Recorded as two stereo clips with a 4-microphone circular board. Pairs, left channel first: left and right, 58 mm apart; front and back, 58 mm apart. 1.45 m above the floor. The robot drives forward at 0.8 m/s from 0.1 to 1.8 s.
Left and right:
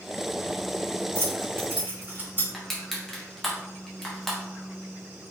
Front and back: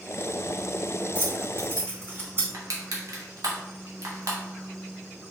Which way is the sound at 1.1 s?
130° right.